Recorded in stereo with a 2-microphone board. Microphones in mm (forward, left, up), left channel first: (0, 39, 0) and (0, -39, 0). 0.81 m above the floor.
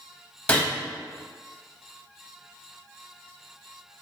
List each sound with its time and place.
0.5 s a gunshot: 15° left (ahead or behind), 0.7 m